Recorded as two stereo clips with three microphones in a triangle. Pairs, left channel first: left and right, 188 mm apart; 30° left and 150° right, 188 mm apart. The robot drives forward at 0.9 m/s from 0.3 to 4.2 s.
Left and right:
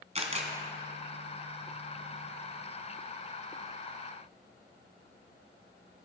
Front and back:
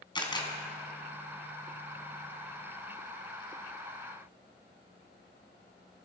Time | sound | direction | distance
0.1 | a camera shutter | 35° right | 2 m